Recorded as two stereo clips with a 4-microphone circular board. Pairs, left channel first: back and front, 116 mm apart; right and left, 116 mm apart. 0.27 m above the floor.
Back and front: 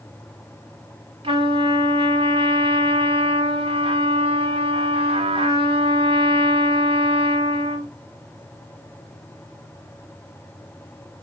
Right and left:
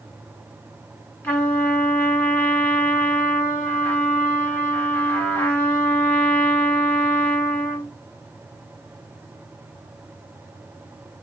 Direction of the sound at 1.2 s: 20° right.